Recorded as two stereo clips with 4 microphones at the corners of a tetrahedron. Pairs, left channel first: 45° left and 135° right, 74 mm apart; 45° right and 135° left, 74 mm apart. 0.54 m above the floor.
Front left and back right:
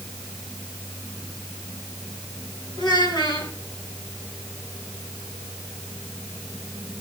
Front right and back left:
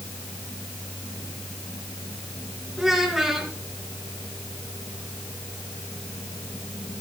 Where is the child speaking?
50° left, 3.5 m.